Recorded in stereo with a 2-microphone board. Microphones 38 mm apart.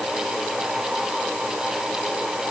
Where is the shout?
No shout in this recording.